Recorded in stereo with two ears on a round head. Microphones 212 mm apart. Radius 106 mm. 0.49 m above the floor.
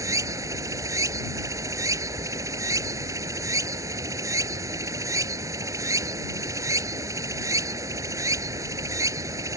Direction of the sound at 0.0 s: 15° right (ahead or behind).